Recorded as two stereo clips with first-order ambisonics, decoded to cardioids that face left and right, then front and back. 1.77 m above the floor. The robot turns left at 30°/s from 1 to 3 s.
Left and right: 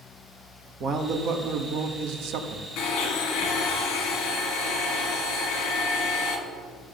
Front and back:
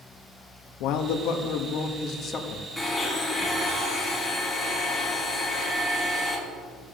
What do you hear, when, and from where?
0.8 s a man speaking: 30° right, 1.0 m; by 2.7 s 80° right, 1.0 m
2.8 s a blender: 90° left, 2.5 m; by 6.4 s 85° left, 2.5 m